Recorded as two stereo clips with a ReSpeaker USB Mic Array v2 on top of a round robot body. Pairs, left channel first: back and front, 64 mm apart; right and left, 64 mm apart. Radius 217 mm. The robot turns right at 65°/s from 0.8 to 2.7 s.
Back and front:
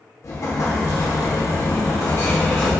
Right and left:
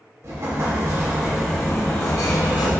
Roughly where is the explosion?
Behind left.